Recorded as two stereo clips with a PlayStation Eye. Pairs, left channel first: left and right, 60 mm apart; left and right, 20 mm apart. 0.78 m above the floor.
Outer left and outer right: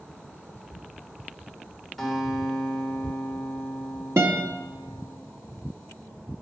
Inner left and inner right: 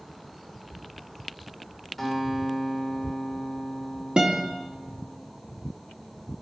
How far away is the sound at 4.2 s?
About 1.4 m.